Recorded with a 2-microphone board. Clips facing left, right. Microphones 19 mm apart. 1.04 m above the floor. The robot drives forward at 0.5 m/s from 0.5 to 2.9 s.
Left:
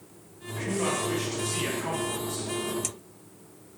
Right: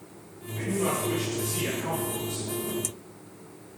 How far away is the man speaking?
About 1.8 m.